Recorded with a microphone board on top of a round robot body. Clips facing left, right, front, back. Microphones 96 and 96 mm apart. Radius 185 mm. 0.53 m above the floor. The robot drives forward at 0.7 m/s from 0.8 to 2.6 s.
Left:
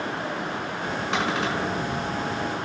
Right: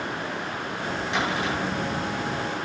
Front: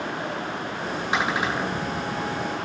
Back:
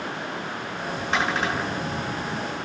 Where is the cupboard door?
80° left, 6.5 m; by 1.9 s 85° left, 6 m.